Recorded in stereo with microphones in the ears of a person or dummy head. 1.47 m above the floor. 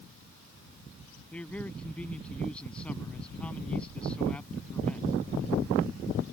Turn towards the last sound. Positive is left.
turn(degrees=5)  # may be behind; listen again after turning